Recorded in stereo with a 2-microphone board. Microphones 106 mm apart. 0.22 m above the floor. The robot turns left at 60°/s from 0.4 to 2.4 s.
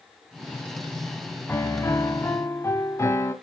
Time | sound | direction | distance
1.5 | a piano | 20° left (ahead or behind) | 0.7 m